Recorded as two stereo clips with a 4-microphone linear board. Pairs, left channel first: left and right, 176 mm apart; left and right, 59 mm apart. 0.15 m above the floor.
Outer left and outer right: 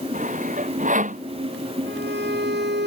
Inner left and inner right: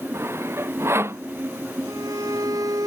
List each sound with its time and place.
0.1 s sawing: 45° right (ahead or behind)
1.9 s a violin: 75° right (ahead or behind)